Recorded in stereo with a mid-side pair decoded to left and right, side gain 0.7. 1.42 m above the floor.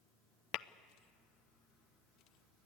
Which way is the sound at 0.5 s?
55° left.